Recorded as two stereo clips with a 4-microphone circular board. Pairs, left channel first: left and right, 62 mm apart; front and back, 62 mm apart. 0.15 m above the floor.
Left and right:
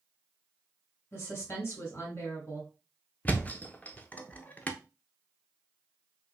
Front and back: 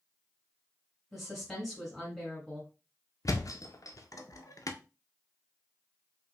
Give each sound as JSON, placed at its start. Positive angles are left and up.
{"t": 1.1, "sound": "a woman speaking", "azimuth_deg": 90, "distance_m": 1.8}
{"t": 3.2, "sound": "a thud", "azimuth_deg": 20, "distance_m": 0.6}